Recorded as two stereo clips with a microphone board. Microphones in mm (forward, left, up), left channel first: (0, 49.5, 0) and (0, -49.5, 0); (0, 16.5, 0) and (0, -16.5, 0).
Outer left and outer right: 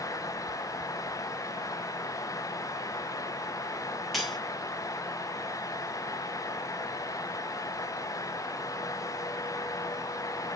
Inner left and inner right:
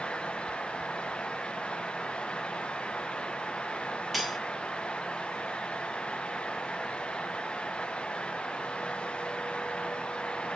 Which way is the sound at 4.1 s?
Centre (ahead or behind).